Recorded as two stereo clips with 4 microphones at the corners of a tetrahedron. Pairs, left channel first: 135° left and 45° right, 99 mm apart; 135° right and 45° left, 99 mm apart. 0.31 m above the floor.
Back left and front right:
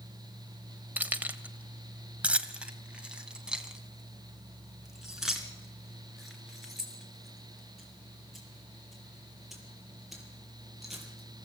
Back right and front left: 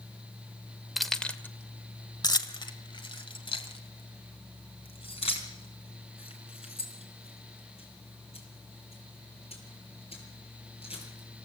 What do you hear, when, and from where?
1.0 s keys jangling: 40° right, 0.9 m; by 11.5 s 135° right, 6.5 m